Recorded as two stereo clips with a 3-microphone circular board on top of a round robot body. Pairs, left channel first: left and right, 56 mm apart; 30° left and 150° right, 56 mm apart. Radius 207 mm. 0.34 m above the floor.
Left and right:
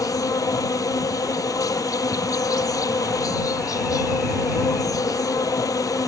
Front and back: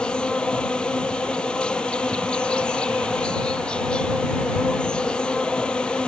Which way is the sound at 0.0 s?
105° left.